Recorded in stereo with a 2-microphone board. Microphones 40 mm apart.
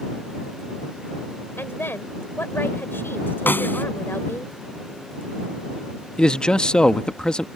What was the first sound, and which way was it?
A woman speaking, 70° left (ahead or behind).